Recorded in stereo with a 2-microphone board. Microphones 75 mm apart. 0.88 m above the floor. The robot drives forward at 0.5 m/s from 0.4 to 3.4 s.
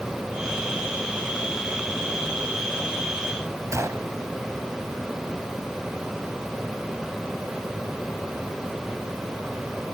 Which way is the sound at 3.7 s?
45° right (ahead or behind).